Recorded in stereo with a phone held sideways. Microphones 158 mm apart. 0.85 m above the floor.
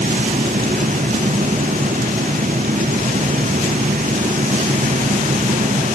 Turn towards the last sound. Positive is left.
turn(degrees=-60)  # may be behind; listen again after turning